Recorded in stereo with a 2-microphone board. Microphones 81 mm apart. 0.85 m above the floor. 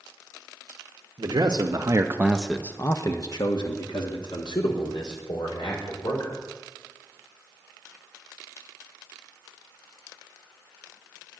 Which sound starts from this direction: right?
A man speaking, at 1.2 s.